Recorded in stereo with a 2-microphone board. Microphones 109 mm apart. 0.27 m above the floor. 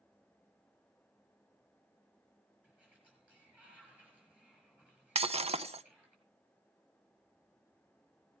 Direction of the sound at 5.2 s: 75° right (ahead or behind).